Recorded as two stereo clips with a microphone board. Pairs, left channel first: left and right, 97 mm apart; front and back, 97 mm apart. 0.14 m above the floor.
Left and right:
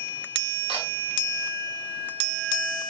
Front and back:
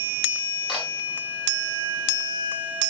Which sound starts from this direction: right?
A camera shutter, at 0.7 s.